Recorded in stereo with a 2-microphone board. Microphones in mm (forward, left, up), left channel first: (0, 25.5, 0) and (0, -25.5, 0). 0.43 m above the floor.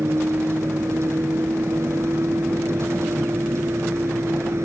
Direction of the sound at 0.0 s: 60° right (ahead or behind).